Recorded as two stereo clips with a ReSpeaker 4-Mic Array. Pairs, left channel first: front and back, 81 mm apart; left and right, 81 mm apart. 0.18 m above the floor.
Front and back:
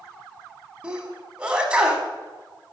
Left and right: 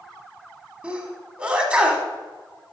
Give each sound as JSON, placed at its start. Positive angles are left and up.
{"t": 0.8, "sound": "a sneeze", "azimuth_deg": -135, "distance_m": 1.1}